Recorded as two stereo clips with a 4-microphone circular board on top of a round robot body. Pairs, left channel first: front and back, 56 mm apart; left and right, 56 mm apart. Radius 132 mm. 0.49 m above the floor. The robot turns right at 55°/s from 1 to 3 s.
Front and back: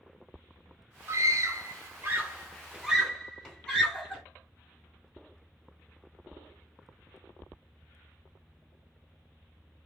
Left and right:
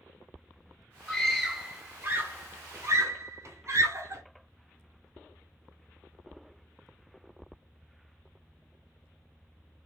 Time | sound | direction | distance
1.1 | a scream | 170° left | 1.6 m